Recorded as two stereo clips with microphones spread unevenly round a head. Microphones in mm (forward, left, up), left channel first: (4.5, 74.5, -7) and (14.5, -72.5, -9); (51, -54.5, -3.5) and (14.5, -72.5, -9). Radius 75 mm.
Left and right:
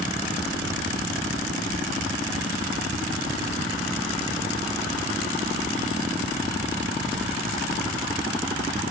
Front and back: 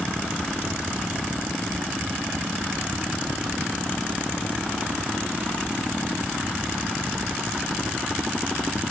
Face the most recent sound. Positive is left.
No sound to turn to.